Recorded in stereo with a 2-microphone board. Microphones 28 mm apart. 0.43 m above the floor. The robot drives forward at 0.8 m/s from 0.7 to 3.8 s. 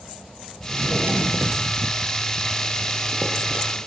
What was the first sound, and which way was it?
A drawer, 75° right (ahead or behind).